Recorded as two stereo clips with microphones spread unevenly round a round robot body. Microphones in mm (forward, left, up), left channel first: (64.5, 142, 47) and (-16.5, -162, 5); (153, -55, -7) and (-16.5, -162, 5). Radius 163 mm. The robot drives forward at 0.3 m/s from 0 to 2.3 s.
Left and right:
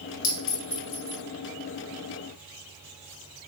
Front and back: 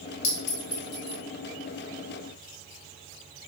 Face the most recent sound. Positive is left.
turn(degrees=75)